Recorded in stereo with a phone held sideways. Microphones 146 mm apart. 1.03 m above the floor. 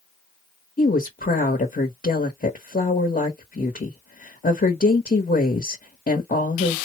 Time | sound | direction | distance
0.8 | a woman speaking | 75° left (ahead or behind) | 1.0 m